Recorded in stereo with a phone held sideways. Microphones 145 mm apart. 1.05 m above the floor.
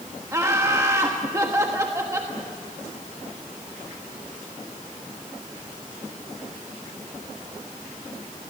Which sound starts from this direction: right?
Laughter, at 0.3 s.